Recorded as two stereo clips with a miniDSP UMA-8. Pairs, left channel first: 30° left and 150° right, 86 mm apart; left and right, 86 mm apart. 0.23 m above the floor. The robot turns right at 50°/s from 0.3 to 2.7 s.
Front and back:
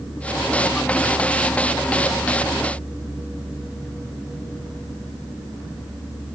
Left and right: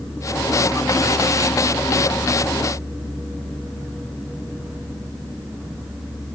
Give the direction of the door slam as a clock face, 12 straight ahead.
No door slam in this recording.